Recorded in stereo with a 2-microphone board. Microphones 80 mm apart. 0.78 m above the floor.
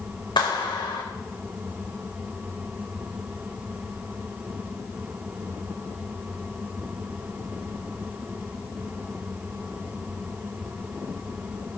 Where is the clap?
80° left, 3 m.